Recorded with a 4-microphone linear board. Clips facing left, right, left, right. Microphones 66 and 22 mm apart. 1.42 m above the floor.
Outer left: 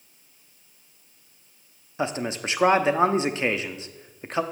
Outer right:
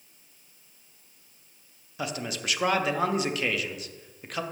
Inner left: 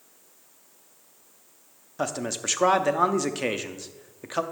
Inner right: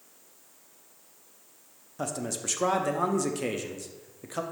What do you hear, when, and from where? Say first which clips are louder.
2.0 s a man speaking: outer left 5 dB, inner left 4 dB; 30° left (ahead or behind), 0.5 m